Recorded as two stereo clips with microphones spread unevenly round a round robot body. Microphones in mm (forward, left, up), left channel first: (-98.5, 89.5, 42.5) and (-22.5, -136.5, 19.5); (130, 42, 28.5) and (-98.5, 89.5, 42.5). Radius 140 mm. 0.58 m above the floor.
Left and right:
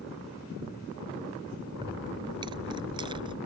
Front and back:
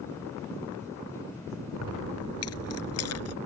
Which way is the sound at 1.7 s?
5° left.